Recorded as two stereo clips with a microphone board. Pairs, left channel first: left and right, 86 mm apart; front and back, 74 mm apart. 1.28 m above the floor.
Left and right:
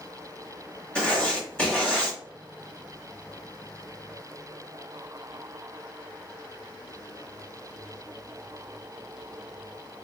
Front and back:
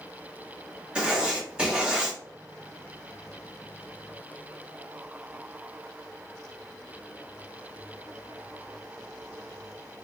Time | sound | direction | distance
0.9 | writing | 140° left | 1.1 m